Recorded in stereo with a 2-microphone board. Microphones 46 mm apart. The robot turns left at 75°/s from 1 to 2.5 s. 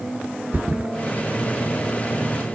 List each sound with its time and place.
0.5 s a thud: 45° right (ahead or behind)